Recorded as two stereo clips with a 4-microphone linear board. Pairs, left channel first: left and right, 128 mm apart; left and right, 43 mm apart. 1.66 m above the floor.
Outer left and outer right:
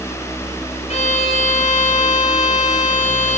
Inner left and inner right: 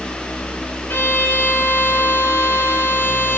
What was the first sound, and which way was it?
A violin, 65° left (ahead or behind).